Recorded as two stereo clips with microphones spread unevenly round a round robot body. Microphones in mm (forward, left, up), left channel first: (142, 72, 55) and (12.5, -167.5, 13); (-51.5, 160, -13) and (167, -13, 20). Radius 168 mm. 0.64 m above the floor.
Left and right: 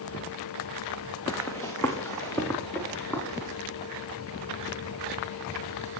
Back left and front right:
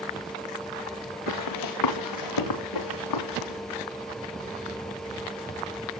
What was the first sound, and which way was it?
Running footsteps, 140° left.